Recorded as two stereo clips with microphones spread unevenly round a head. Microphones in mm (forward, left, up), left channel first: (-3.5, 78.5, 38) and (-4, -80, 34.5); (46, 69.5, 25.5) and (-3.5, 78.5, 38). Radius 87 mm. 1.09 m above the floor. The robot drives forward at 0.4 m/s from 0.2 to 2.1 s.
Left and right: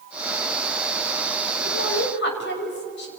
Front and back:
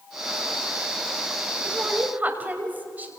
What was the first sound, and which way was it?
A woman speaking, 110° left.